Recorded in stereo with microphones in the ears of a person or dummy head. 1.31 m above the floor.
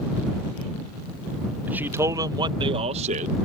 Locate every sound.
1.7 s a man speaking: 10° right (ahead or behind); by 3.4 s 45° right (ahead or behind)